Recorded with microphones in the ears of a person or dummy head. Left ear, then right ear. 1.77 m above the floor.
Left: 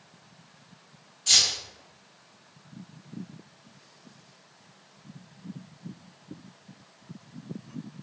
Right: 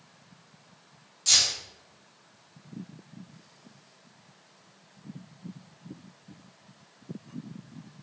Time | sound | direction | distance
1.3 | keys jangling | 35° right (ahead or behind) | 1.3 m